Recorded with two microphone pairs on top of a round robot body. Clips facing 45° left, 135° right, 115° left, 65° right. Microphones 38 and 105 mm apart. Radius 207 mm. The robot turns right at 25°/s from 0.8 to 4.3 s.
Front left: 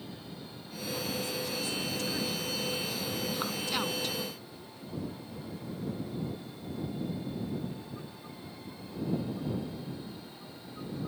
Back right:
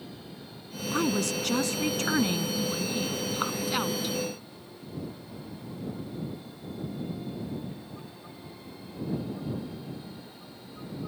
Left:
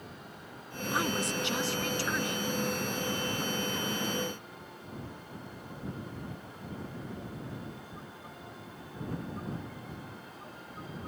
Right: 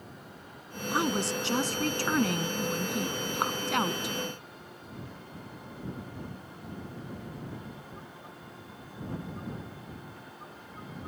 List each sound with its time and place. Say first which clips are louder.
0.9 s a woman speaking: back right 8 dB, right 3 dB; 130° right; by 4.2 s 50° right